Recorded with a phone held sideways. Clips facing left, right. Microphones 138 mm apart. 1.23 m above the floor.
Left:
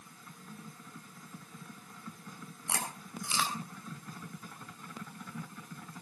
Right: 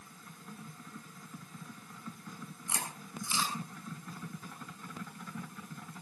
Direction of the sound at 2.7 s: 75° left (ahead or behind).